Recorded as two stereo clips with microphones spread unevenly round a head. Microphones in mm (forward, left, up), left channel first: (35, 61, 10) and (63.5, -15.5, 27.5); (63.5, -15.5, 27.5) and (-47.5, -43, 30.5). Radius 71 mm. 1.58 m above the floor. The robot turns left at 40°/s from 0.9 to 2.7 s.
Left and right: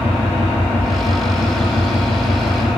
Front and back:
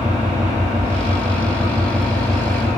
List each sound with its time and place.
0.0 s an engine running: 145° left, 1.4 m; by 2.8 s 75° left, 1.4 m